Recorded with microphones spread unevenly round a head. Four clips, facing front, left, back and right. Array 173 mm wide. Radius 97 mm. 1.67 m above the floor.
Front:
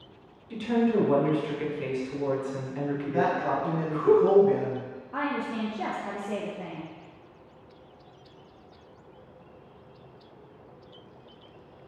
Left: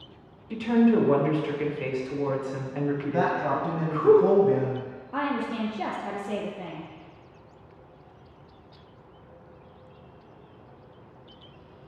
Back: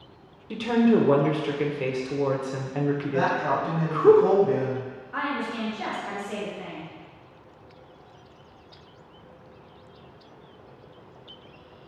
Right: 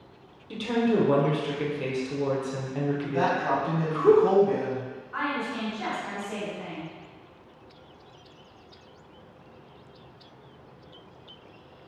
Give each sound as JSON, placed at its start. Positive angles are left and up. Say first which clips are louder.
{"t": 0.5, "sound": "a woman speaking", "louder": "left 4 dB, back 4 dB", "azimuth_deg": -170, "distance_m": 0.8}
{"t": 3.1, "sound": "a man speaking", "louder": "right 1 dB, front 1 dB", "azimuth_deg": 85, "distance_m": 1.1}
{"t": 5.1, "sound": "a woman speaking", "louder": "left 2 dB, back 1 dB", "azimuth_deg": 55, "distance_m": 0.8}